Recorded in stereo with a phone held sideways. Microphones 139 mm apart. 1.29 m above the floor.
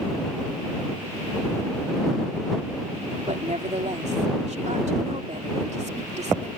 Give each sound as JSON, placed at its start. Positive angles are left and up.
{"t": 3.3, "sound": "a woman speaking", "side_deg": -55}